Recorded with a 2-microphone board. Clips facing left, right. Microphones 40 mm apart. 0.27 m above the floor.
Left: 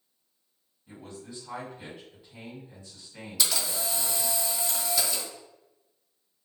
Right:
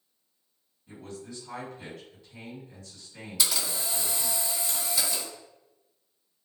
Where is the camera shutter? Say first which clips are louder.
Left 1 dB; centre (ahead or behind), 1.8 m.